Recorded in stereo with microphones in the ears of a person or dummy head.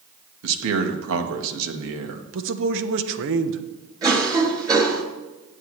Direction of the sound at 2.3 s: 65° right (ahead or behind).